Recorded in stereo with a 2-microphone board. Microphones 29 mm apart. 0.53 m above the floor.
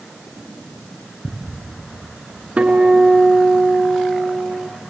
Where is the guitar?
60° right (ahead or behind), 3 m.